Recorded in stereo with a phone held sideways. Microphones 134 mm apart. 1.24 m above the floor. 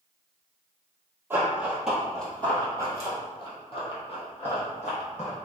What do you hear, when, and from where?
1.3 s running footsteps: 15° right (ahead or behind), 1.6 m; by 5.3 s 60° left (ahead or behind), 2.5 m